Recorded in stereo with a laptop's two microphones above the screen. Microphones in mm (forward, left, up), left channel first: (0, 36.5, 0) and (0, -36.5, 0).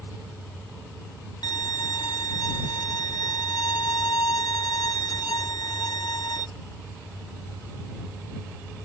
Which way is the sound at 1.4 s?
70° left (ahead or behind).